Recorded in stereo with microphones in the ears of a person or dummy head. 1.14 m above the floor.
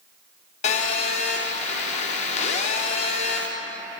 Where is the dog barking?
I don't hear a dog barking.